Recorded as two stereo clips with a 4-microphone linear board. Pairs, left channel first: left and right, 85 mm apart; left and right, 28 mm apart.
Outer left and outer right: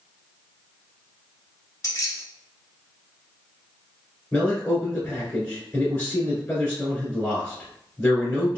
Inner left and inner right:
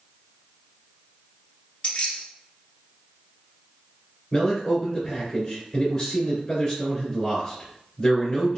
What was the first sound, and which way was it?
Keys jangling, 40° left (ahead or behind).